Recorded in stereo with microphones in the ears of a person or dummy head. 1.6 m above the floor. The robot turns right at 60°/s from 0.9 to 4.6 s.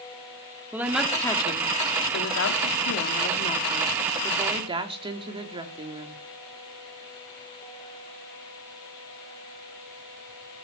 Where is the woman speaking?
10° right, 3 m; by 6.2 s 145° right, 3 m.